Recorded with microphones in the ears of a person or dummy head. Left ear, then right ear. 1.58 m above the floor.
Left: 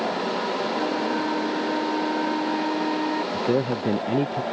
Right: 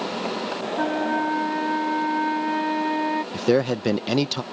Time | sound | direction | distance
0.8 | a flute | 30° right (ahead or behind) | ?
3.3 | a man speaking | 70° right (ahead or behind) | ?